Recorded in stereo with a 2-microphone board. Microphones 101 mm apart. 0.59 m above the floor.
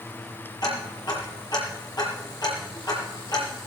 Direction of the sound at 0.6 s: 45° left (ahead or behind).